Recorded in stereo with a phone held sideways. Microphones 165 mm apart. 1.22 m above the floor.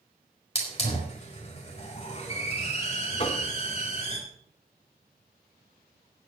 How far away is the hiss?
About 4.5 m.